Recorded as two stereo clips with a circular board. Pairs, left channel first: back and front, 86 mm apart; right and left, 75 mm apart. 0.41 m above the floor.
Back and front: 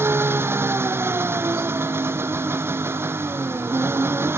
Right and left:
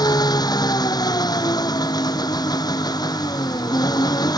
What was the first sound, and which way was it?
An engine running, 65° right.